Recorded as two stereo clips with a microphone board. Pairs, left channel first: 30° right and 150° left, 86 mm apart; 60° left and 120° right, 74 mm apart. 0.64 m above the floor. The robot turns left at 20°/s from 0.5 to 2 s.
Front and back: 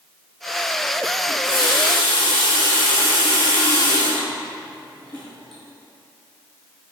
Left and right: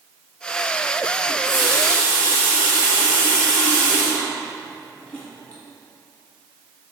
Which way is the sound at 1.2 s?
150° left.